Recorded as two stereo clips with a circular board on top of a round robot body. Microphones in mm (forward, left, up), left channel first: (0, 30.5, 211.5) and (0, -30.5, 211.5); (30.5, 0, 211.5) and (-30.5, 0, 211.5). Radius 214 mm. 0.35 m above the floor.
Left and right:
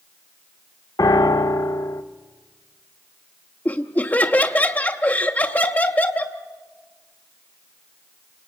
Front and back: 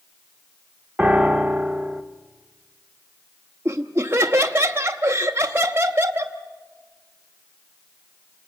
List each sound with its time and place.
1.0 s a piano: 105° left, 0.8 m
3.6 s laughter: 140° left, 1.1 m